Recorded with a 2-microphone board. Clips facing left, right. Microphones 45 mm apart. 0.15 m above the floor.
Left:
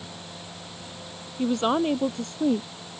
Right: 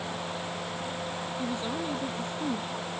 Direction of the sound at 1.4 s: 75° left (ahead or behind).